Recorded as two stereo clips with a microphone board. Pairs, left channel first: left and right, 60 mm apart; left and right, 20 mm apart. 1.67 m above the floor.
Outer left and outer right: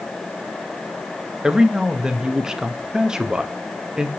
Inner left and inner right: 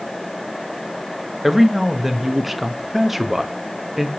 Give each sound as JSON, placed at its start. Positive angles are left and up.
{"t": 1.4, "sound": "a man speaking", "side_deg": -10, "distance_m": 0.5}